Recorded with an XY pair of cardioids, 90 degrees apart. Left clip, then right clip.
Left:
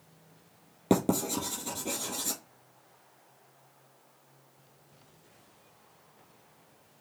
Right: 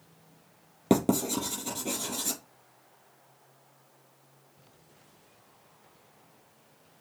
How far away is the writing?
About 3.5 m.